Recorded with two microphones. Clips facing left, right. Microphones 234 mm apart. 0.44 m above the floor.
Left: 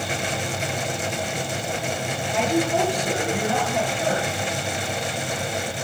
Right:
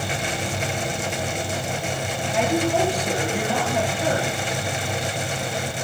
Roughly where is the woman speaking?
Centre.